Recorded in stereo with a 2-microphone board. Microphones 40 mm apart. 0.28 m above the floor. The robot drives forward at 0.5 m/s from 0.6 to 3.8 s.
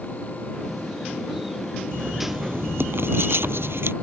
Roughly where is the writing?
Right.